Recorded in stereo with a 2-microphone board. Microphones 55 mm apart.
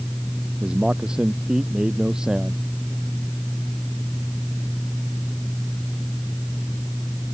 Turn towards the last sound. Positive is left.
turn(degrees=-15)  # may be behind; listen again after turning